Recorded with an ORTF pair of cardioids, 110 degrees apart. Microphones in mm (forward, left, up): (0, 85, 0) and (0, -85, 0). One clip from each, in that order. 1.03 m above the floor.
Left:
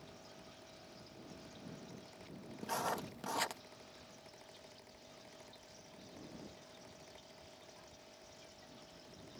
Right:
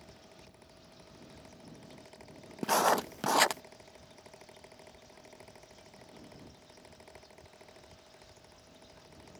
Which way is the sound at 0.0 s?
45° right.